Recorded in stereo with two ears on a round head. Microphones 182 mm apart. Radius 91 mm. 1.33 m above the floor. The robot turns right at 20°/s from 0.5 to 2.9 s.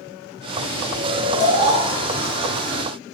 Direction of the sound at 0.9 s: 45° right (ahead or behind).